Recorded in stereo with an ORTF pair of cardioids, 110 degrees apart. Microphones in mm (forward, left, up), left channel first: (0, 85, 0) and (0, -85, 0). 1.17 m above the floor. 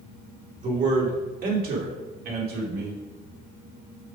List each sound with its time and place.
0.6 s a man speaking: 45° right, 2.5 m; by 3.0 s 75° right, 3 m